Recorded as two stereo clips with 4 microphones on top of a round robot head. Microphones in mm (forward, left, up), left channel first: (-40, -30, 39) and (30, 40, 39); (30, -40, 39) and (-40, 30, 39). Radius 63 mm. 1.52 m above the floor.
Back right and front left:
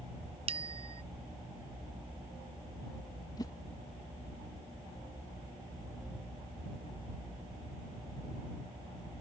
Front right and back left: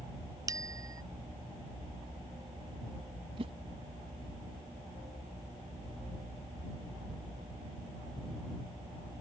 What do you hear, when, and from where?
0.5 s a bicycle bell: 75° left
3.4 s a whoosh: 170° left